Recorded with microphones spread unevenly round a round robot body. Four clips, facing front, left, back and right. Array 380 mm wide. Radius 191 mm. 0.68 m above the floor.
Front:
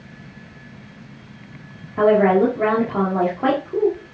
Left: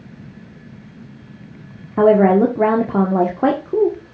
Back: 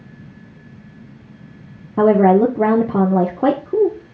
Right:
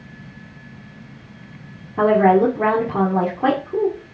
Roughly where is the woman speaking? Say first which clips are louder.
Left 2 dB, back 3 dB; behind left.